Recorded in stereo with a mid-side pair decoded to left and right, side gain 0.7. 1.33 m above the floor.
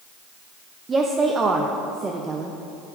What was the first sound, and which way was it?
A woman speaking, 25° right.